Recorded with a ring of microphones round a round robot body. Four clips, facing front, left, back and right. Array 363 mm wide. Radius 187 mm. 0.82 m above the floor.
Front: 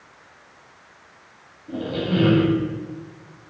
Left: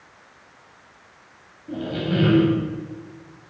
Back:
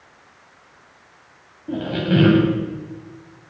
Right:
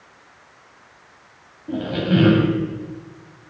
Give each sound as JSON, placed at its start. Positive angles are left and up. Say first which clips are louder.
{"t": 1.7, "sound": "a squeak", "louder": "right 4 dB, back 3 dB", "azimuth_deg": -155, "distance_m": 0.8}